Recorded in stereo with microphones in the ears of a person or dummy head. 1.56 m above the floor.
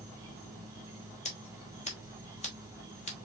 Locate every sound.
0.0 s an insect: 15° right (ahead or behind), 1.7 m
1.2 s scissors: 30° left (ahead or behind), 1.2 m